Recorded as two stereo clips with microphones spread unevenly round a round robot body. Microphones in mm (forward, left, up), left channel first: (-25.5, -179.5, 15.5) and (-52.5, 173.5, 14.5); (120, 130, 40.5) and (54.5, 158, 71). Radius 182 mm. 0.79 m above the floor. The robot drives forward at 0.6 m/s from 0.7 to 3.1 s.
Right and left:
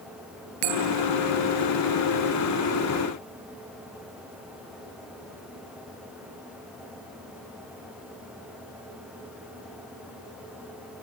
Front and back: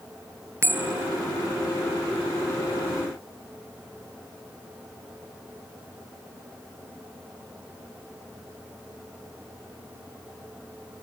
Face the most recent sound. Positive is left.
turn(degrees=110)